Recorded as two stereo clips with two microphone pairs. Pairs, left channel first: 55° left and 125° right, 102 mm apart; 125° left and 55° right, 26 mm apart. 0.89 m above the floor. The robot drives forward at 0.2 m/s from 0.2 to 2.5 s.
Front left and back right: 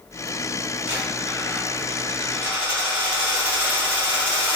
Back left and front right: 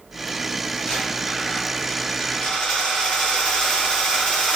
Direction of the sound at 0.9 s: 165° left.